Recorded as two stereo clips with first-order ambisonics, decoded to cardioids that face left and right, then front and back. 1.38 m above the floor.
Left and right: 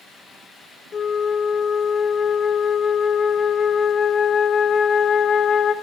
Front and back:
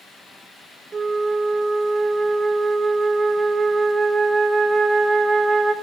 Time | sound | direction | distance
0.9 | a flute | 130° left | 0.6 m